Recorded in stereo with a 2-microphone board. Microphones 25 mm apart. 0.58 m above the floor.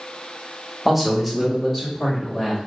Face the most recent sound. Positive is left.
turn(degrees=10)  # may be behind; listen again after turning